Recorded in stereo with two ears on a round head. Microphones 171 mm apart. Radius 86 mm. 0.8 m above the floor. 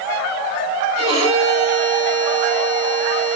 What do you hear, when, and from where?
1.0 s a violin: 20° right (ahead or behind), 3.5 m